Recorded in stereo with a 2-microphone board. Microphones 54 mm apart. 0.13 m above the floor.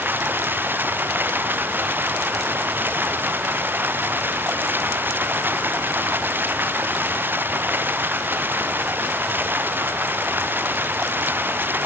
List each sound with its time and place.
0.0 s running water: 35° right (ahead or behind)